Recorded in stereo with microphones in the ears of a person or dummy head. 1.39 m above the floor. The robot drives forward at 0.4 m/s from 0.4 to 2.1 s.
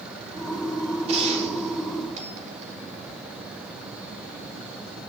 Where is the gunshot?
35° right (ahead or behind), 4 m; by 2.8 s 40° right (ahead or behind), 3.5 m.